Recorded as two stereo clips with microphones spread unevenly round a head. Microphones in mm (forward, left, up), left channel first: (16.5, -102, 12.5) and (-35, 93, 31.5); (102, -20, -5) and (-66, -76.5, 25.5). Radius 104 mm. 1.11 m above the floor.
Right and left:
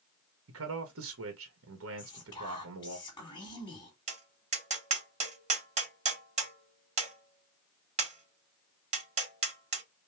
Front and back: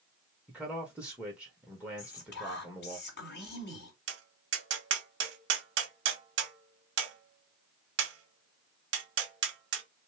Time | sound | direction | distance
0.5 | a man speaking | 110° left | 1.4 m
2.0 | whispering | 5° right | 3 m
4.1 | tapping | 165° left | 2 m